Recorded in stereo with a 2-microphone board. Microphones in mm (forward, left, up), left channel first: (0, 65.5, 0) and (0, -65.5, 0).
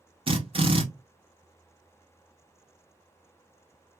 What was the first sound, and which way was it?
A drill, 45° right (ahead or behind).